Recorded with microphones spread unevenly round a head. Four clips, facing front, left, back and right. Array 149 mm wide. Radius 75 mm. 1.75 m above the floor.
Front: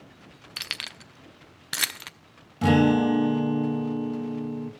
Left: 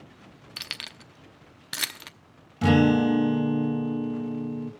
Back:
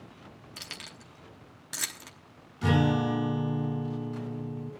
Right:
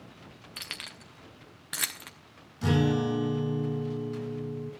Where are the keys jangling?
10° left, 0.7 m.